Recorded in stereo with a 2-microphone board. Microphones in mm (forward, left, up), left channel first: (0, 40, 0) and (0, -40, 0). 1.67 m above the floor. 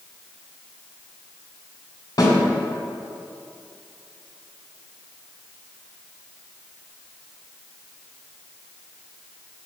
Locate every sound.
2.2 s a snare drum: 55° left (ahead or behind), 2 m